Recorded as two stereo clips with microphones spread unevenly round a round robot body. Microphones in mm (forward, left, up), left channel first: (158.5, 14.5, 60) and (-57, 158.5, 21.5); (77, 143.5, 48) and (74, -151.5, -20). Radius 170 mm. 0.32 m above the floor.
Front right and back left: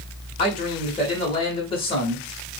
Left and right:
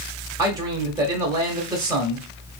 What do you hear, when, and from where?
0.4 s a man speaking: 100° right, 0.9 m